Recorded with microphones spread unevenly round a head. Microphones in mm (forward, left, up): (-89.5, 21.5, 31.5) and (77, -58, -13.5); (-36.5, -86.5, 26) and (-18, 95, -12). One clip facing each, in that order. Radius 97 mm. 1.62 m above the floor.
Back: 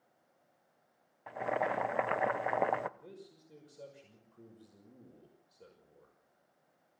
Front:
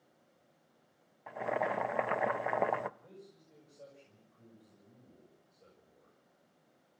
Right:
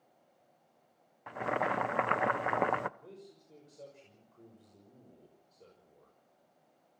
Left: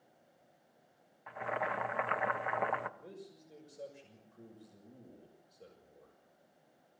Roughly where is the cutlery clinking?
I don't hear cutlery clinking.